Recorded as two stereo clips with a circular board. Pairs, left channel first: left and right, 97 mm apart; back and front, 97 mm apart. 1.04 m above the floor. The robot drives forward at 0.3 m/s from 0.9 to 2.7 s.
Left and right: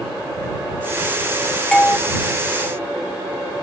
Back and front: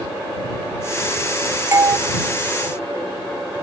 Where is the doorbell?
20° left, 0.6 m; by 2.0 s 25° left, 0.5 m.